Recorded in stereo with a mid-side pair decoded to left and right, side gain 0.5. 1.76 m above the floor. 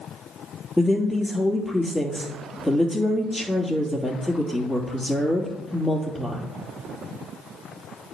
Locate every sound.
0.8 s a woman speaking: 10° left, 3 m